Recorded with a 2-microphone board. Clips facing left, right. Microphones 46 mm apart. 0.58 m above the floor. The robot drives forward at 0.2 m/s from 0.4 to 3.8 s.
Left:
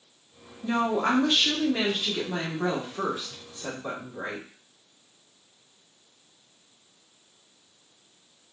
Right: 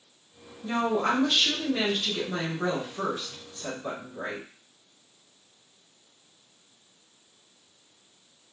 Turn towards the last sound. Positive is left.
turn(degrees=10)  # may be behind; listen again after turning